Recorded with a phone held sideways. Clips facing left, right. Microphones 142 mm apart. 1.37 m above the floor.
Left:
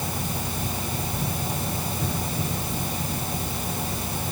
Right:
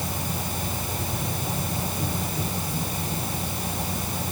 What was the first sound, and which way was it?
Only background noise.